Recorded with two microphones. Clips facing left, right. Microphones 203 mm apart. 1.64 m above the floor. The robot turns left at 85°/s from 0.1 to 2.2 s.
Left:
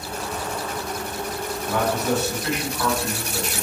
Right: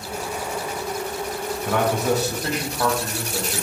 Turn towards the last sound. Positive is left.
turn(degrees=-145)